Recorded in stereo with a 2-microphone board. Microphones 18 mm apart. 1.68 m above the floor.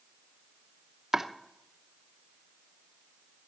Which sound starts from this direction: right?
Chopping, at 1.1 s.